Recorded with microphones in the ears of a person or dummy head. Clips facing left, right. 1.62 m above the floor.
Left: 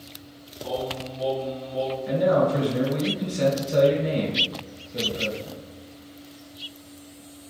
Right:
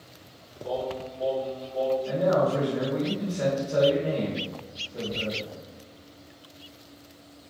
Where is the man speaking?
20° left (ahead or behind), 1.5 m.